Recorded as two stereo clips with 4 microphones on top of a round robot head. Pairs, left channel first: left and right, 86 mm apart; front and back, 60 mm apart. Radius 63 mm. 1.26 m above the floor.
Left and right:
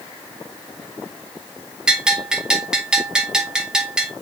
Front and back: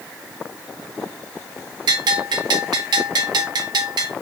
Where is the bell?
170° right, 1.9 m.